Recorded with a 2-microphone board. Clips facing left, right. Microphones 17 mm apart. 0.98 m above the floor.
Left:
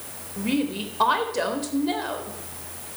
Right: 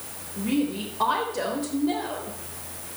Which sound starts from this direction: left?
A woman speaking, at 0.4 s.